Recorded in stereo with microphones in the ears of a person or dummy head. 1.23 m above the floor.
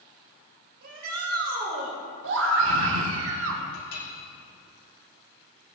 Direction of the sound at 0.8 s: 60° right (ahead or behind).